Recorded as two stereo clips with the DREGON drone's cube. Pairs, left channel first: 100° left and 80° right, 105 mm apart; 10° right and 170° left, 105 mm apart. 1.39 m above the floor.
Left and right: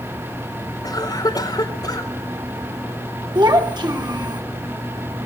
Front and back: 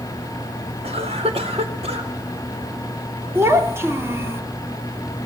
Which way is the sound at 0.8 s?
155° left.